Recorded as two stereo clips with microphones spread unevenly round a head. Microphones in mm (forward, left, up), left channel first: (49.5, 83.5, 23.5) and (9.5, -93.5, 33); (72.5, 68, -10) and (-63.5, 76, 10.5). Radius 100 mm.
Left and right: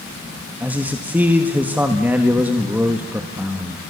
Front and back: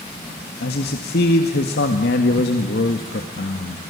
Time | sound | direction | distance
0.6 | a man speaking | 20° right | 1.6 m